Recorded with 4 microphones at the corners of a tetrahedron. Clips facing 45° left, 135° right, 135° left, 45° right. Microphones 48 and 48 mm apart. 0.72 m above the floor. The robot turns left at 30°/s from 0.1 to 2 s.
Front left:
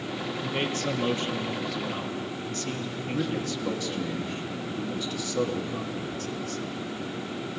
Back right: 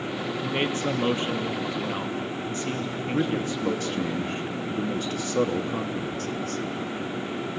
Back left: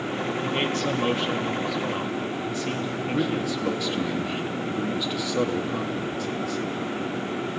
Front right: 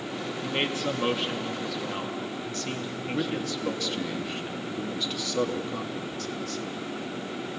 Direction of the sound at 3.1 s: 150° right.